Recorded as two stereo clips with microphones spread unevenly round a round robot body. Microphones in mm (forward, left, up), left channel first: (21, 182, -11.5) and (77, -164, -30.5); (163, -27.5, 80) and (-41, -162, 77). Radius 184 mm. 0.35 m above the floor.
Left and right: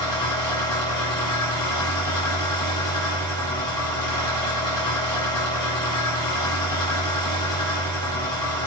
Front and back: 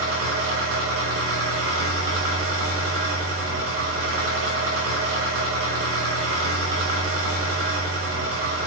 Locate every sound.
0.0 s an engine running: straight behind, 0.8 m